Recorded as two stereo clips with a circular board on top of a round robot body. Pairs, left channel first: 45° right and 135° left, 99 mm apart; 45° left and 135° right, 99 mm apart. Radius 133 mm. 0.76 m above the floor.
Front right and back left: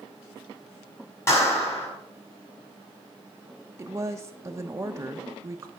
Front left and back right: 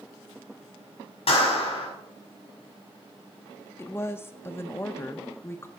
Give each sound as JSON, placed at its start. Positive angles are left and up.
{"t": 1.3, "sound": "a clap", "azimuth_deg": 20, "distance_m": 5.5}
{"t": 3.8, "sound": "a woman speaking", "azimuth_deg": 95, "distance_m": 0.9}